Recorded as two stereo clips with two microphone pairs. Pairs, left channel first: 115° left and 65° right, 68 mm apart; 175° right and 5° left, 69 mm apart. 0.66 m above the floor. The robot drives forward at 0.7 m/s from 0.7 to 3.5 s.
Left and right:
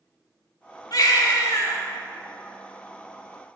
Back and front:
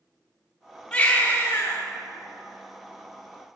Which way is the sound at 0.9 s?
115° left.